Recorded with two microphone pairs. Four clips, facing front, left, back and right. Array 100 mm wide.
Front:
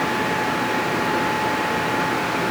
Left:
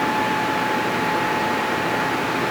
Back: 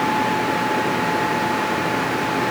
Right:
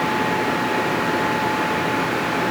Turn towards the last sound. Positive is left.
No sound to turn to.